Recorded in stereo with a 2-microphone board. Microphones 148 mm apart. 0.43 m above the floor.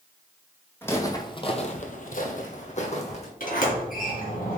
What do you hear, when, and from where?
0.8 s footsteps: 15° left (ahead or behind), 1.2 m; by 3.3 s 45° left (ahead or behind), 1.6 m
3.4 s a sliding door: 70° left (ahead or behind), 2.5 m